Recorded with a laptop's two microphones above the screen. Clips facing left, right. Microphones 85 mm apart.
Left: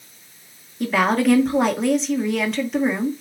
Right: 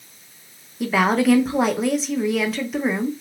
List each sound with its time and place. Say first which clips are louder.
0.8 s a woman speaking: even; centre (ahead or behind), 0.9 m